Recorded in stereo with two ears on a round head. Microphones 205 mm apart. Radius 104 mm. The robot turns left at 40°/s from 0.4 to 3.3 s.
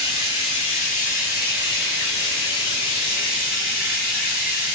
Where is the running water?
155° left, 1.5 m; by 4.8 s 40° left, 1.5 m.